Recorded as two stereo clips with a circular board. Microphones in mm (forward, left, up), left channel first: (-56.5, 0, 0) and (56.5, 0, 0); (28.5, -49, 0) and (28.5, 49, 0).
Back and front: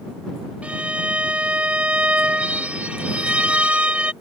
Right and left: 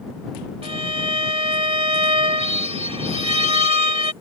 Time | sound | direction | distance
0.6 | a violin | 80° left | ?